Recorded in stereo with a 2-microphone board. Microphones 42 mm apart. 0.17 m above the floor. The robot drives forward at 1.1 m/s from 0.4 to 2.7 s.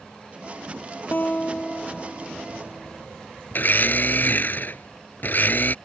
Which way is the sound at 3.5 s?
50° left (ahead or behind).